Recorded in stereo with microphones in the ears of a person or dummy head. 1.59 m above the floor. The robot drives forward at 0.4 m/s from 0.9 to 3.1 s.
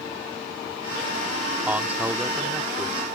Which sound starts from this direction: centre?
A man speaking, at 1.7 s.